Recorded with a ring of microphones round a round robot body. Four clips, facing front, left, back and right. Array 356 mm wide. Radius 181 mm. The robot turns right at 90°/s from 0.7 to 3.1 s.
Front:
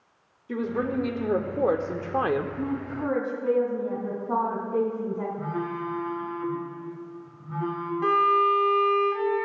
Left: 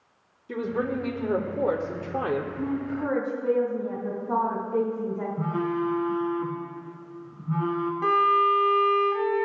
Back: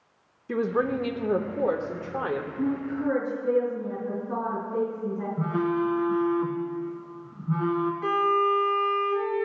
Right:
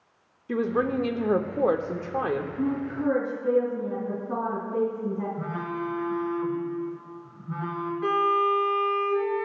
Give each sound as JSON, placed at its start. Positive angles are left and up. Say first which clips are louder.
{"t": 0.5, "sound": "a woman speaking", "louder": "right 3 dB, back 2 dB", "azimuth_deg": -145, "distance_m": 0.8}
{"t": 2.6, "sound": "a woman speaking", "louder": "right 1 dB, back 2 dB", "azimuth_deg": 0, "distance_m": 3.0}
{"t": 5.4, "sound": "a phone buzzing", "louder": "left 5 dB, back 5 dB", "azimuth_deg": 155, "distance_m": 1.4}
{"t": 8.0, "sound": "a violin", "louder": "left 2 dB, front 4 dB", "azimuth_deg": 55, "distance_m": 1.7}